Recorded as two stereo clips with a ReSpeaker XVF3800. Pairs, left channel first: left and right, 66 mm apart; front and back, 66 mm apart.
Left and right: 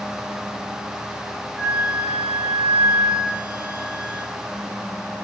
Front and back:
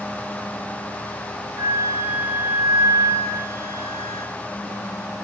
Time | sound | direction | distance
1.6 | a flute | 170° right | 6.5 m